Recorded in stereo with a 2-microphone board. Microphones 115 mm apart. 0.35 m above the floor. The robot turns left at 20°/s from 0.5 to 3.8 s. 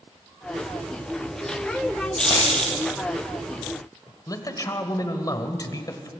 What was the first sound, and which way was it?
A dropped coin, 30° left (ahead or behind).